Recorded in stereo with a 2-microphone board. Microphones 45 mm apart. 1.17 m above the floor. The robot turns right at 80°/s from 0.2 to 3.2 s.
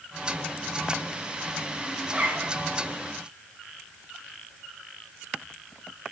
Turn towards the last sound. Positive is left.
turn(degrees=-70)